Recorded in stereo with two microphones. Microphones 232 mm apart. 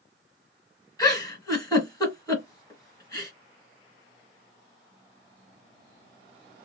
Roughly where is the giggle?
Centre.